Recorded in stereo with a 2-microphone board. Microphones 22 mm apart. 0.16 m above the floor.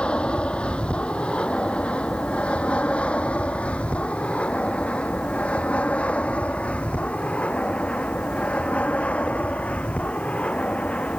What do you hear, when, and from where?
0.0 s an aircraft: 55° left (ahead or behind); by 11.2 s 80° left